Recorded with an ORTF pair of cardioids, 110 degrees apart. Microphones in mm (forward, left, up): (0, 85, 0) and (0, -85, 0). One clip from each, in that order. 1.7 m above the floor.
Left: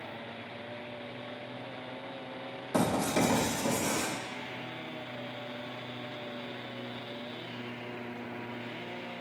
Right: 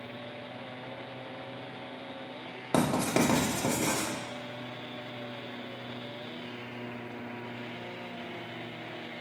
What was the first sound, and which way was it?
Writing, 65° right.